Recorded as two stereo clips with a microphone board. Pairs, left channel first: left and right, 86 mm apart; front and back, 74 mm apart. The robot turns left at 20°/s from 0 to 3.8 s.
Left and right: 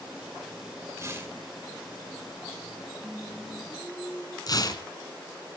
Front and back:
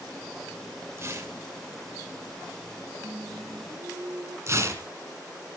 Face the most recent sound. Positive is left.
turn(degrees=130)